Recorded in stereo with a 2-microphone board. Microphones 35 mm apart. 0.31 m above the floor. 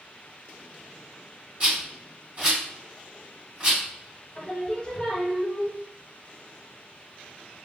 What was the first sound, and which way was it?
A rattle, 40° right (ahead or behind).